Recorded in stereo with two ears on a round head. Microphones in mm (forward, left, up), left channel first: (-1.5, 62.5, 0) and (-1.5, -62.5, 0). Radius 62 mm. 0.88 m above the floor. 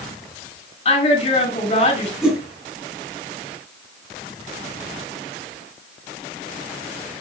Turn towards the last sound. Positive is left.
turn(degrees=-5)  # may be behind; listen again after turning